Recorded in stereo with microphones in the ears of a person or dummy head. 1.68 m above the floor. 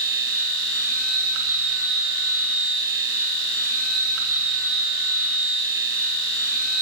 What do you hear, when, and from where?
0.0 s a machine running: 85° right, 2.5 m